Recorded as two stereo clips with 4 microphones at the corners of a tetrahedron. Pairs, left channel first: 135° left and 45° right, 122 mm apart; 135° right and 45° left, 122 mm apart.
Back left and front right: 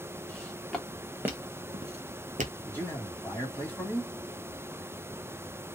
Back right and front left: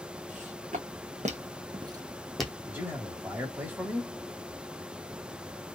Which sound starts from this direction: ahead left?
Footsteps, at 0.3 s.